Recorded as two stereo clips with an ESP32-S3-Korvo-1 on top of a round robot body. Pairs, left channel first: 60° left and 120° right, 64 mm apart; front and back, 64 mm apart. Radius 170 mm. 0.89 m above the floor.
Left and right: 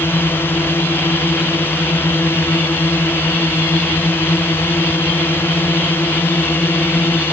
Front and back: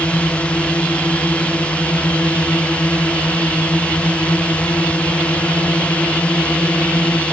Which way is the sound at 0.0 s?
60° left.